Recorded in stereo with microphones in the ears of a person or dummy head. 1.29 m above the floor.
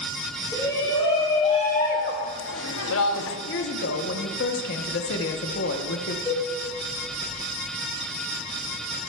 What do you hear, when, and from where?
0.5 s a shout: 15° left (ahead or behind), 1.5 m; by 3.4 s 65° left (ahead or behind), 0.9 m
3.5 s a woman speaking: 55° left (ahead or behind), 0.9 m
6.2 s a cowbell: 10° left (ahead or behind), 3 m